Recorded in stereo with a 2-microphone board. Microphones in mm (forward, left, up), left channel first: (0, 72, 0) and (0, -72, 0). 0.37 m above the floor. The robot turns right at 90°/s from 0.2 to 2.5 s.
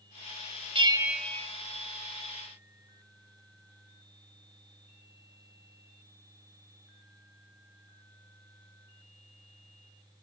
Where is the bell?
40° right, 0.7 m; by 1.5 s 25° left, 0.7 m.